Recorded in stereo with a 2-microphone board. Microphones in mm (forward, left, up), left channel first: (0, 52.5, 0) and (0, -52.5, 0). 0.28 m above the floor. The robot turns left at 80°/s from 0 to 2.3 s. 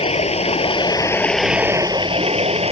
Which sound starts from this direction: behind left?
Running water, at 0.0 s.